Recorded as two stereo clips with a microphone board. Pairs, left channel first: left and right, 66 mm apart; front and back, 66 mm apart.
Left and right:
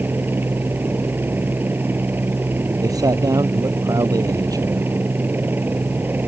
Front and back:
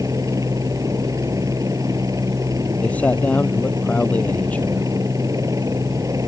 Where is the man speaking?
70° right.